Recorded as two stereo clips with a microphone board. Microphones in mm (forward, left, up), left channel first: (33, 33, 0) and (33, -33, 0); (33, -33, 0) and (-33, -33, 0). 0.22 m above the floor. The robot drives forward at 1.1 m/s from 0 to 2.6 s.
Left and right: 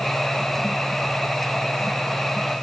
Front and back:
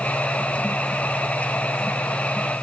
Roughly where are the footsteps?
No footsteps in this recording.